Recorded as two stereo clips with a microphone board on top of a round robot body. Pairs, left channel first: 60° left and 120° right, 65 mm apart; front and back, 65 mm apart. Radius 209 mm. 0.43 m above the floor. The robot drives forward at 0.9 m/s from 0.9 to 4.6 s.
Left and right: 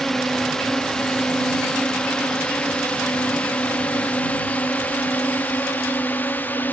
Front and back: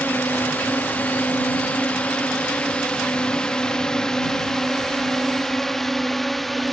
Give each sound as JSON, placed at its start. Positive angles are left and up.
{"t": 0.0, "sound": "a drone", "azimuth_deg": -15}